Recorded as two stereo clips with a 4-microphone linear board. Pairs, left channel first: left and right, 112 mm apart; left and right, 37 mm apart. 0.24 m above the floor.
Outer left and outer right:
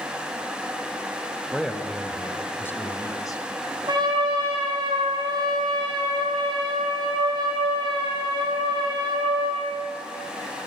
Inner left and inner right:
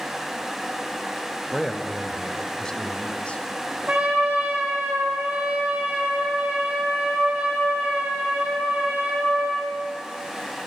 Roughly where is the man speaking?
Centre.